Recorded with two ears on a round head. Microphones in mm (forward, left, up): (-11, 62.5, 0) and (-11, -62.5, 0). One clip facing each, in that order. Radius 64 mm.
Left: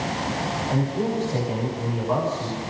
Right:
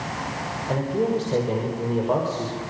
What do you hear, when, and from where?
0.7 s a man speaking: 45° right (ahead or behind), 6.5 m; by 2.6 s 40° right (ahead or behind), 5.5 m